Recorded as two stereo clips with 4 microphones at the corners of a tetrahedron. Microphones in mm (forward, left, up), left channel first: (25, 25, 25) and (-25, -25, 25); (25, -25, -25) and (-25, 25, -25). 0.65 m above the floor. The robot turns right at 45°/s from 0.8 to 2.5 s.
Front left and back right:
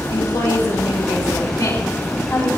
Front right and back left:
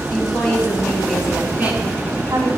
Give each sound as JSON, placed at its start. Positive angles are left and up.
{"t": 0.1, "sound": "a woman speaking", "azimuth_deg": 35, "distance_m": 5.0}